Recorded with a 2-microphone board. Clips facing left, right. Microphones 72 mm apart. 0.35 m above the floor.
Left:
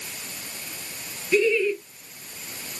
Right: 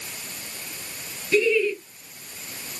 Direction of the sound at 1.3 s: 10° left (ahead or behind).